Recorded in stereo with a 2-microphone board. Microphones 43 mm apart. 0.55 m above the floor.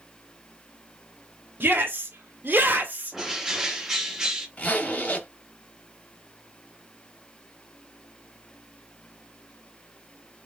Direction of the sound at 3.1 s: 10° right (ahead or behind).